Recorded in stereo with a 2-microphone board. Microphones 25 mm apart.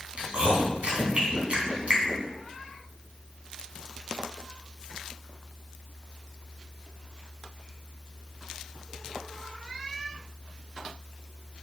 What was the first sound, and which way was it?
Chewing, 60° right (ahead or behind).